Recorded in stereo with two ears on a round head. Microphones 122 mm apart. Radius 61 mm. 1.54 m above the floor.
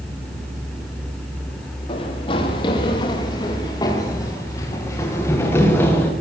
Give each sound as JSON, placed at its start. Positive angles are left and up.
{"t": 1.9, "sound": "running footsteps", "side_deg": 40, "distance_m": 8.0}